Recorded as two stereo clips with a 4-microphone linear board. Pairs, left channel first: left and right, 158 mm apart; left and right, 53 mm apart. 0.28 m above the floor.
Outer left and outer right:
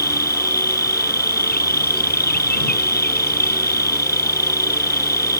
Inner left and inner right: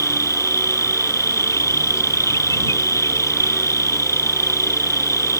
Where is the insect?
80° left.